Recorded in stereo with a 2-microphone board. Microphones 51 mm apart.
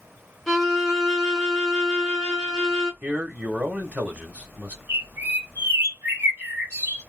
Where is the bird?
40° right (ahead or behind), 1.6 m.